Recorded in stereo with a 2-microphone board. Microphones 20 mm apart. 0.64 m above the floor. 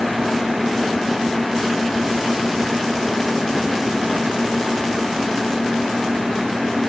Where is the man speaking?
No man speaking in this recording.